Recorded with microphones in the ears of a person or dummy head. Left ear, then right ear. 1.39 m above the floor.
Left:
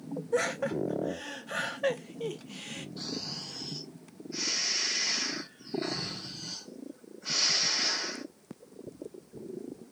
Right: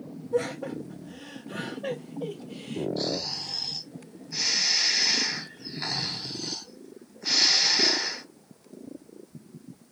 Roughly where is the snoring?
Right.